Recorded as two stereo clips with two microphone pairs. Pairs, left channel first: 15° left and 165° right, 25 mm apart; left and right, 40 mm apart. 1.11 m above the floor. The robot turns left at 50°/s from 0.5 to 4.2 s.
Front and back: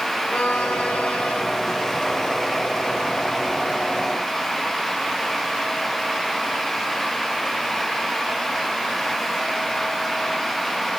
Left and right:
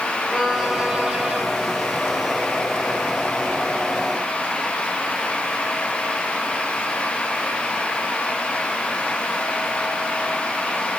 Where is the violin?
10° left, 5 m; by 1.4 s 35° right, 5 m.